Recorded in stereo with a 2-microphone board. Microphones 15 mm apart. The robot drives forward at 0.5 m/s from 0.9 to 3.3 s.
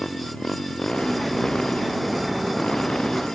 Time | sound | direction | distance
0.0 | a motorcycle | 90° left | ?